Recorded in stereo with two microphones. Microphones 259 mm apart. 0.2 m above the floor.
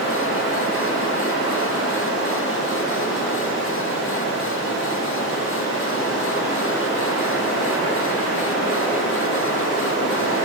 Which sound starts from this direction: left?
Running water, at 0.0 s.